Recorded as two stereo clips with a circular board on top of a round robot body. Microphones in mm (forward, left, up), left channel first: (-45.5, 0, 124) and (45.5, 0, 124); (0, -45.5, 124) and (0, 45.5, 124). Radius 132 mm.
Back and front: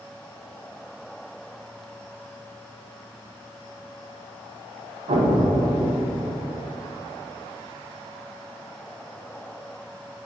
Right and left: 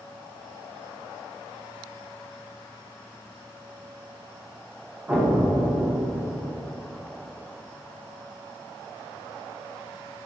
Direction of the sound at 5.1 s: 15° left.